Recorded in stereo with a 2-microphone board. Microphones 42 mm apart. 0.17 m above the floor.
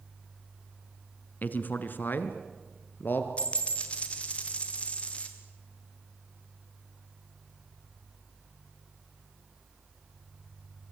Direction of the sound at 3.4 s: 35° left (ahead or behind).